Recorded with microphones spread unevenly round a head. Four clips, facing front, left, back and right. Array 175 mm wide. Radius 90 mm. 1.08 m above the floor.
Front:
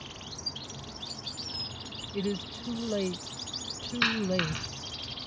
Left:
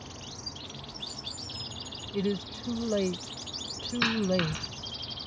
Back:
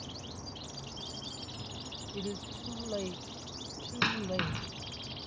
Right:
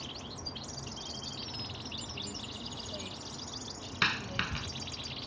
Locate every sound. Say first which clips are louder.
2.1 s a woman speaking: left 13 dB, front 7 dB; 50° left
4.0 s a dropped coin: left 7 dB, front 4 dB; 175° left